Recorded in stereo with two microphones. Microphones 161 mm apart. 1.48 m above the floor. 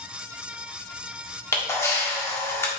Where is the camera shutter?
15° left (ahead or behind), 1.7 m.